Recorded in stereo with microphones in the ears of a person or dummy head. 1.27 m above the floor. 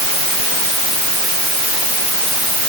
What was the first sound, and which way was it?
Only background noise.